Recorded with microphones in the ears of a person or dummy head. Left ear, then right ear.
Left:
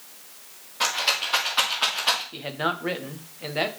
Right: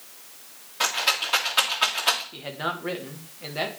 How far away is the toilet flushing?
No toilet flushing in this recording.